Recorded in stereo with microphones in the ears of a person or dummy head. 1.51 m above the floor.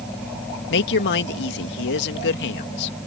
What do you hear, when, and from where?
0.7 s a woman speaking: 60° left (ahead or behind)